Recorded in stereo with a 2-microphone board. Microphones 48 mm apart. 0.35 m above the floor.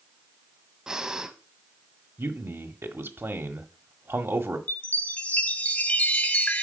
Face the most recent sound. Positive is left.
turn(degrees=30)  # may be behind; listen again after turning